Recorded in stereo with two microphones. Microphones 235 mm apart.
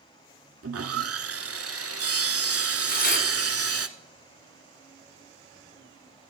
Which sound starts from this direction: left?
Tearing paper, at 2.9 s.